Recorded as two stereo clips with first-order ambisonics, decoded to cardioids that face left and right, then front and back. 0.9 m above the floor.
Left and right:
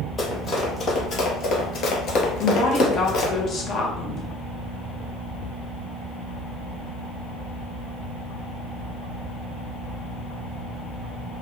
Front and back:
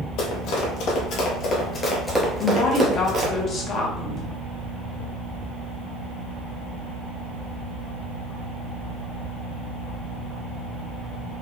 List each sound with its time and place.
0.2 s running footsteps: 15° left, 1.8 m; by 3.3 s 135° left, 1.4 m
2.4 s a woman speaking: 40° left, 0.9 m